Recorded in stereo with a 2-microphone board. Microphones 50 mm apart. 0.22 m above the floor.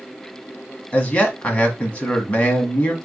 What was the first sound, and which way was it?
A man speaking, 25° left (ahead or behind).